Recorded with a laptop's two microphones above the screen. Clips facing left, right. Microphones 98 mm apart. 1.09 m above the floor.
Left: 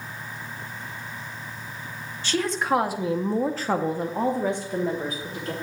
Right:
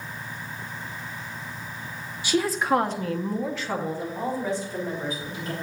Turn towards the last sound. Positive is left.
turn(degrees=55)  # may be behind; listen again after turning